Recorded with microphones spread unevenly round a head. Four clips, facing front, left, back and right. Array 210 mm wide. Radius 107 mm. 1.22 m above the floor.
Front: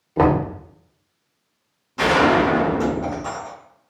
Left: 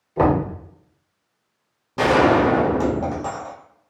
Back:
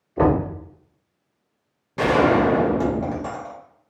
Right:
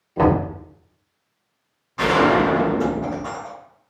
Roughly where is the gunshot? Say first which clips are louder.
Left 1 dB, front 1 dB; behind left.